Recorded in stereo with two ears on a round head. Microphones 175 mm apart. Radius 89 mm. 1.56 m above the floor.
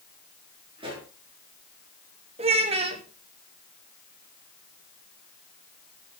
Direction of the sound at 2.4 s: 30° right (ahead or behind).